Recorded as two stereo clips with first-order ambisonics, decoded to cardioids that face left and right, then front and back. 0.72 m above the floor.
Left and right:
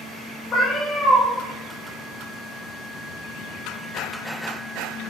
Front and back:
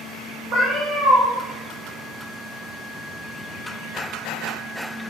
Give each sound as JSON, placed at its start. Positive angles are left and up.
{"t": 0.5, "sound": "a cat meowing", "azimuth_deg": 155, "distance_m": 1.3}